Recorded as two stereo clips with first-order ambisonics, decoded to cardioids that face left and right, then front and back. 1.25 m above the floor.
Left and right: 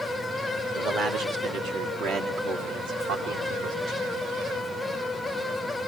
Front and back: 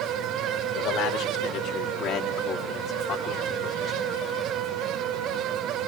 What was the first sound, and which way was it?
A man speaking, 35° right.